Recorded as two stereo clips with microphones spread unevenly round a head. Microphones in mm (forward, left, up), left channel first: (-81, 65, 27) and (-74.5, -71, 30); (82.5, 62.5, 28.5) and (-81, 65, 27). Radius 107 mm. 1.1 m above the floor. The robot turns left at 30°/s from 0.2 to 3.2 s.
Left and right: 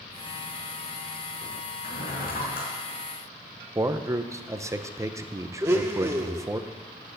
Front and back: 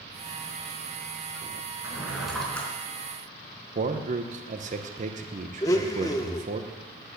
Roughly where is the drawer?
Left.